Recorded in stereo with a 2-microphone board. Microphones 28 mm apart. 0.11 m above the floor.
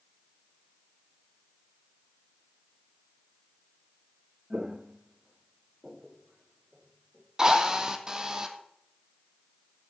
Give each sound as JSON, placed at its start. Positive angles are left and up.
{"t": 4.5, "sound": "footsteps", "side_deg": -30, "distance_m": 0.6}
{"t": 7.4, "sound": "a drill", "side_deg": -25, "distance_m": 1.7}